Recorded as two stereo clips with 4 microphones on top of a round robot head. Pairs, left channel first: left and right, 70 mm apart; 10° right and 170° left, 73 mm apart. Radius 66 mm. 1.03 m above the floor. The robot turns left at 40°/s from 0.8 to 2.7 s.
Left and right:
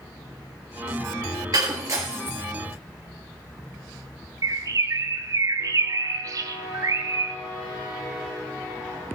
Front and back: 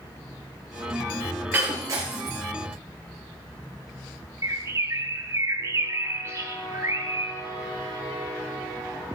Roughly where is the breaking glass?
Behind right.